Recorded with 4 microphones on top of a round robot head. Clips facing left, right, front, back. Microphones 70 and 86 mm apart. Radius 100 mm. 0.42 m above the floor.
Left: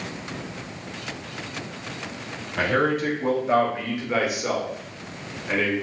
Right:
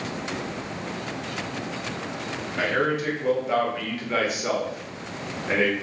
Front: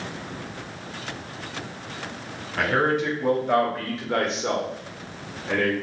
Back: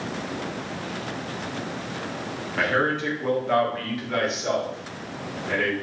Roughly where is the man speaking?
Left.